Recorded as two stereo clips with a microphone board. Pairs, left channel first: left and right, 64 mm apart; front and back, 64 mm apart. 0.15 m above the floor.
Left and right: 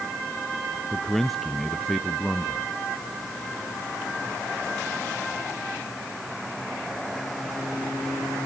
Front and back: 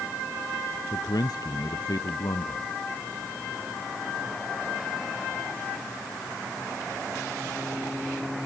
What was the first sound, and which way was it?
A man speaking, 5° left.